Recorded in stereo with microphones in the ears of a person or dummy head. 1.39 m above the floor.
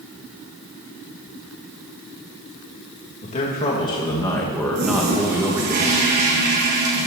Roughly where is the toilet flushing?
Right.